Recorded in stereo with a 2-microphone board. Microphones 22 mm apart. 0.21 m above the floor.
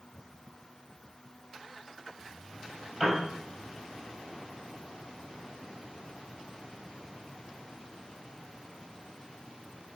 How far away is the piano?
About 5 m.